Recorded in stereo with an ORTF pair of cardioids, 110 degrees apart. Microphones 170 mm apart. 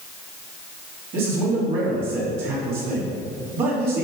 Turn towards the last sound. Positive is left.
turn(degrees=-65)